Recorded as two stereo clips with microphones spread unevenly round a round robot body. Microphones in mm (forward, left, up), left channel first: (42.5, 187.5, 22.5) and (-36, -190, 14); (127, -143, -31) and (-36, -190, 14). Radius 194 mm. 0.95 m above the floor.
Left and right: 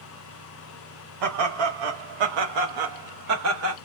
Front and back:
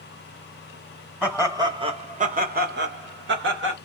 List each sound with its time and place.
1.2 s laughter: 75° right, 1.3 m; by 3.8 s 160° right, 1.4 m